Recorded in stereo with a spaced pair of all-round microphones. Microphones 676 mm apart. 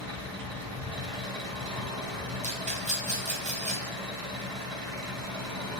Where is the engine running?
50° right (ahead or behind), 1.3 m.